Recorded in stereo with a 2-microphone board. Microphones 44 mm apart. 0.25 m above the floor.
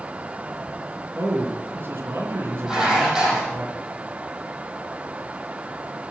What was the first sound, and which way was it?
A man speaking, 65° right (ahead or behind).